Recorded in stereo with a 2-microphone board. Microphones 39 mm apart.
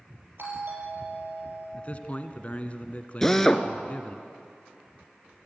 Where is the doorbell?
65° right (ahead or behind), 6 m.